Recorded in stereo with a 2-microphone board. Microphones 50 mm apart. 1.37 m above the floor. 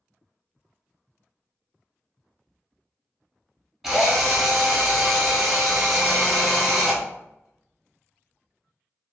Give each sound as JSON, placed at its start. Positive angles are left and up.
{"t": 3.8, "sound": "a drill", "side_deg": -5, "distance_m": 0.8}